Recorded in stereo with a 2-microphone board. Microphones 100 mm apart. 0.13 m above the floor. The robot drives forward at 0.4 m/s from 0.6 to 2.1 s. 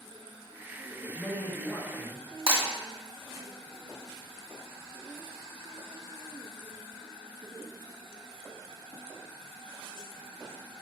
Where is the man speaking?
20° left (ahead or behind), 1.2 m.